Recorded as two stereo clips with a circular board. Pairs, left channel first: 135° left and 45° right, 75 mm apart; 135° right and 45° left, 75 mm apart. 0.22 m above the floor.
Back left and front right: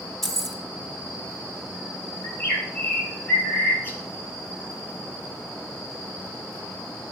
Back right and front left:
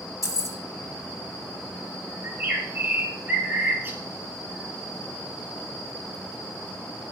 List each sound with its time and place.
0.2 s keys jangling: 140° right, 0.9 m
2.2 s a bird: 90° left, 1.3 m